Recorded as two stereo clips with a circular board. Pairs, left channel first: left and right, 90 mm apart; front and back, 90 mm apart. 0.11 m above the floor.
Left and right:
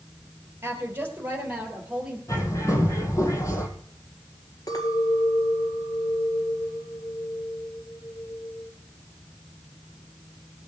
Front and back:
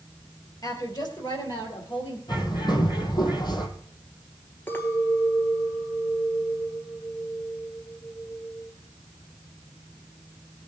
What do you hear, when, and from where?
0.6 s a woman speaking: 35° right, 3 m; by 2.2 s 15° right, 3.5 m
2.3 s a bird: 35° left, 2 m
4.7 s a clink: 60° left, 1.8 m